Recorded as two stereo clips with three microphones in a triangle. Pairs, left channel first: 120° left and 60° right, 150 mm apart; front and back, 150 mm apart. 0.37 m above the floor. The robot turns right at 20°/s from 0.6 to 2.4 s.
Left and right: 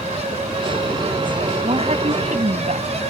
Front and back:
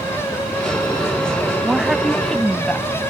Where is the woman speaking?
100° right; by 2.9 s 85° right.